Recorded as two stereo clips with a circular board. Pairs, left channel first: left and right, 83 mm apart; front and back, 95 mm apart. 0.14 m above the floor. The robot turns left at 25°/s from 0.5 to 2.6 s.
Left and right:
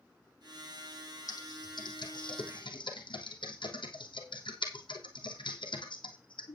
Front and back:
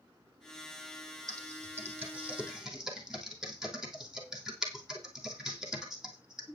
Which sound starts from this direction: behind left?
Typing on a keyboard, at 1.3 s.